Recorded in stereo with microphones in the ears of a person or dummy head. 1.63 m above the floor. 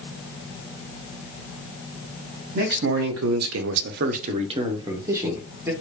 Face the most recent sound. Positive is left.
turn(degrees=-10)  # may be behind; listen again after turning